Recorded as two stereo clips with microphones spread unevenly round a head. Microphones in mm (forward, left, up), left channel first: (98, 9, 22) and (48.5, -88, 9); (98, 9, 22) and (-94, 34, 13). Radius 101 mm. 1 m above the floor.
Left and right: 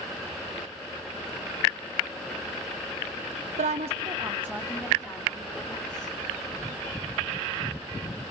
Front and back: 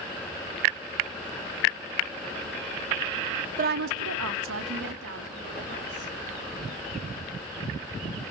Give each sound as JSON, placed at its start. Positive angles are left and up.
{"t": 3.6, "sound": "a woman speaking", "azimuth_deg": -135, "distance_m": 0.6}